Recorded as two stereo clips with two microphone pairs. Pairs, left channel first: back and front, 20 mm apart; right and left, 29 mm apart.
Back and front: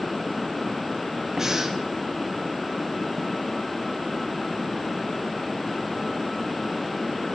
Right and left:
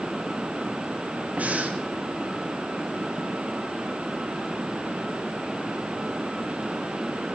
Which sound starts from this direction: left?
Breathing, at 1.4 s.